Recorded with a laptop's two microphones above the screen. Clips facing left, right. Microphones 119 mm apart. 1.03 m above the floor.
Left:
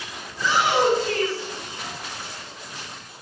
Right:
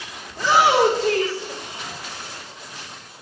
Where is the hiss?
I don't hear a hiss.